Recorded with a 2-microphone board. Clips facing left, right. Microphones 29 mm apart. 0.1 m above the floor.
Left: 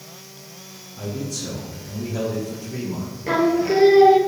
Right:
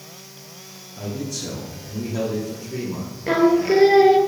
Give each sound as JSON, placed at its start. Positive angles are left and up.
{"t": 1.0, "sound": "a man speaking", "side_deg": -25, "distance_m": 3.0}
{"t": 3.3, "sound": "singing", "side_deg": -10, "distance_m": 1.1}